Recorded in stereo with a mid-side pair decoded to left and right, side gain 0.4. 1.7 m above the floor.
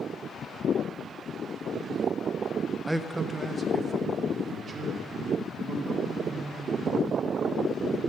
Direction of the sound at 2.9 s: 10° right.